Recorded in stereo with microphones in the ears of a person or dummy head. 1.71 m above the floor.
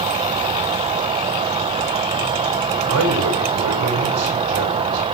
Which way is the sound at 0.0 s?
30° right (ahead or behind).